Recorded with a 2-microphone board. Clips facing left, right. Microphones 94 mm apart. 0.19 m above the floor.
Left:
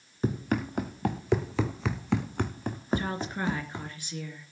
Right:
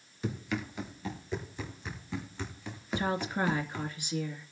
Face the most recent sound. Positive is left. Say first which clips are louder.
# right 3 dB
turn(degrees=-15)  # may be behind; listen again after turning